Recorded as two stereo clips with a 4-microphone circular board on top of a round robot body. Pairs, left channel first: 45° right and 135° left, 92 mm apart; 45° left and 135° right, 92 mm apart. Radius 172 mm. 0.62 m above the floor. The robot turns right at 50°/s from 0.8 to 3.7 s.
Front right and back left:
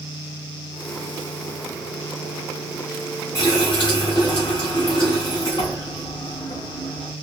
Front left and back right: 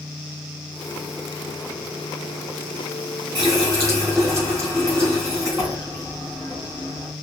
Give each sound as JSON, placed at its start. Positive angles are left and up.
{"t": 3.4, "sound": "a running tap", "azimuth_deg": -100, "distance_m": 3.0}